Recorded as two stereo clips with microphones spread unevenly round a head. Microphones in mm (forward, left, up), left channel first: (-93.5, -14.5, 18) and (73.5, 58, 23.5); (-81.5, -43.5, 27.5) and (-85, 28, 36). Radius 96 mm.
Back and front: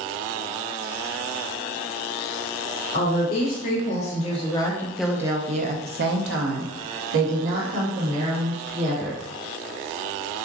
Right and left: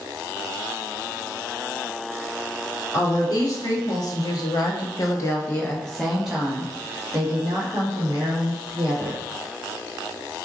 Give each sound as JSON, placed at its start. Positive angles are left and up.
{"t": 2.9, "sound": "a woman speaking", "azimuth_deg": -120, "distance_m": 1.6}